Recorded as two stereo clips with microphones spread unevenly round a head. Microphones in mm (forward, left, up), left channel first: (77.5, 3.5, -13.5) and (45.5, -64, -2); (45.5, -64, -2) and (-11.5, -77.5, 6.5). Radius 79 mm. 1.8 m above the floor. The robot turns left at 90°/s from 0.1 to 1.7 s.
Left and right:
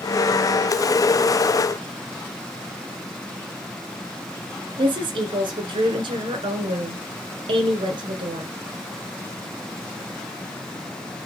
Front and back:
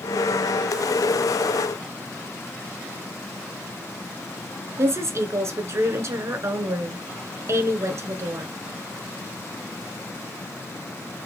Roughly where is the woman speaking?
Behind right.